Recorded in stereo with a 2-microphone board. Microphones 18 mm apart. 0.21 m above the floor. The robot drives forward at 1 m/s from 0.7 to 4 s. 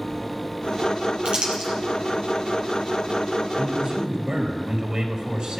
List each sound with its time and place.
1.2 s crumpling: 50° right (ahead or behind), 4.5 m; by 1.7 s 55° right (ahead or behind), 4 m
3.6 s a man speaking: 50° right (ahead or behind), 5 m; by 5.6 s 55° right (ahead or behind), 4.5 m